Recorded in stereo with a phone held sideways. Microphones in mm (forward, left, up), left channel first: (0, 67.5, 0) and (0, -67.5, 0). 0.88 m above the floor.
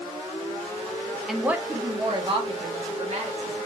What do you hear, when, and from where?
1.3 s a woman speaking: centre (ahead or behind), 0.5 m; by 3.6 s 55° right (ahead or behind), 1.4 m